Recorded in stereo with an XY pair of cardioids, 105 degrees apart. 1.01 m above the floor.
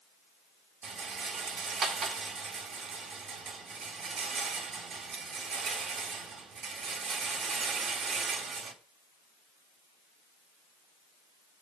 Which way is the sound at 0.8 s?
60° right.